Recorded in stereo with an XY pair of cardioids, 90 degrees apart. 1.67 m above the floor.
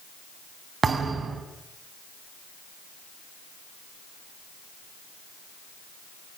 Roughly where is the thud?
Ahead right.